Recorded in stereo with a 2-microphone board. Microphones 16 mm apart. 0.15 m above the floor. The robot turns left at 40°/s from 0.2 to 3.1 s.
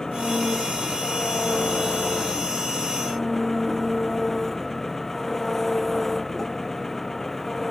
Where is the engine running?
135° left; by 7.7 s 20° left.